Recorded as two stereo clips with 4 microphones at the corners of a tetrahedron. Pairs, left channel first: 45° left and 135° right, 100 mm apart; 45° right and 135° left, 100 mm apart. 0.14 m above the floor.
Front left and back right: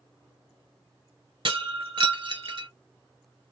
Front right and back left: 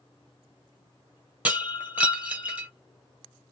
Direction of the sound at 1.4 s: 150° right.